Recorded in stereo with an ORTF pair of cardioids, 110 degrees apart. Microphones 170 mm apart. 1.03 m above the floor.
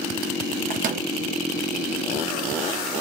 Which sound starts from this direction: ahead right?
A microwave, at 0.7 s.